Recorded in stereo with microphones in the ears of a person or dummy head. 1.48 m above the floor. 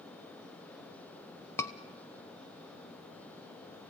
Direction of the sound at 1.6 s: 10° left (ahead or behind).